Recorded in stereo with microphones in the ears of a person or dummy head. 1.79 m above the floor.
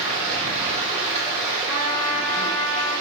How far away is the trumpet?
About 2.5 m.